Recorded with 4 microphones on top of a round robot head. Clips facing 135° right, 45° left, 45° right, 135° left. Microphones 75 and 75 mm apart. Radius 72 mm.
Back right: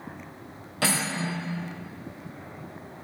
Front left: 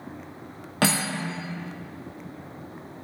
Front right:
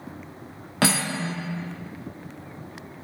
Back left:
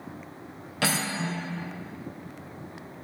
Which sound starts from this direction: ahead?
Cutlery clinking, at 0.8 s.